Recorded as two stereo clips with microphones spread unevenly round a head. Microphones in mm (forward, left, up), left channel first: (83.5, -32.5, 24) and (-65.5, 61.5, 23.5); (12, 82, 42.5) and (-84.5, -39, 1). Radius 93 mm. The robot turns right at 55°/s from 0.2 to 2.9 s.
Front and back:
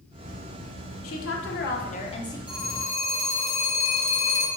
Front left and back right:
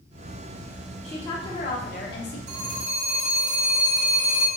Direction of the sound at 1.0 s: 35° right.